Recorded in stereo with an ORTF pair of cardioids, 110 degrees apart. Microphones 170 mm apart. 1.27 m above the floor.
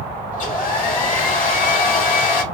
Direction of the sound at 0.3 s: 50° left.